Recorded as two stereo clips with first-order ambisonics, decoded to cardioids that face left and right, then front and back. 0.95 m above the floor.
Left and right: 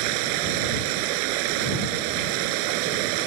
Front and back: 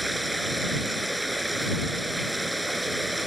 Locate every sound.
0.0 s running water: 95° right